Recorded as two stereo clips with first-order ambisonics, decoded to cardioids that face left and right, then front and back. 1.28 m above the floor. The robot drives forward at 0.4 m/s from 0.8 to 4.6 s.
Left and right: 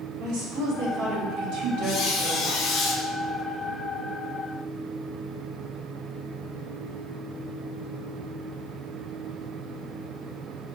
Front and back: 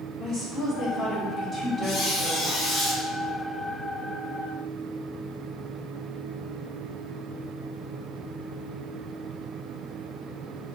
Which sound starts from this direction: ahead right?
A woman speaking, at 0.2 s.